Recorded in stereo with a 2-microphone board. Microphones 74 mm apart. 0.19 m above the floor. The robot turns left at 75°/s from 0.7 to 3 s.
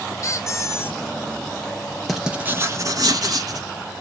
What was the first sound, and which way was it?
A squeak, 45° left (ahead or behind).